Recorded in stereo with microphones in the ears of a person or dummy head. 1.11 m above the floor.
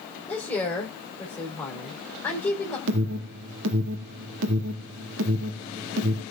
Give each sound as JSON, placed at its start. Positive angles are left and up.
{"t": 0.3, "sound": "a woman speaking", "side_deg": 10, "distance_m": 3.5}
{"t": 2.9, "sound": "an alarm", "side_deg": -65, "distance_m": 2.0}